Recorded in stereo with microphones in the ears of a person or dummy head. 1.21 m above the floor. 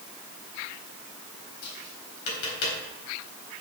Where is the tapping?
75° left (ahead or behind), 4 m.